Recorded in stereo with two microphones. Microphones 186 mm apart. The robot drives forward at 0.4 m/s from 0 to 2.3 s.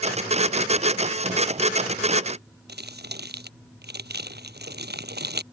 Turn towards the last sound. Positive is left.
turn(degrees=-65)  # may be behind; listen again after turning